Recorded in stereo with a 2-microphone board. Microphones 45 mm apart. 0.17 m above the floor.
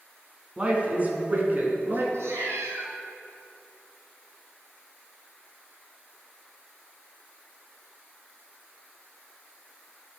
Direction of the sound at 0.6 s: 25° right (ahead or behind).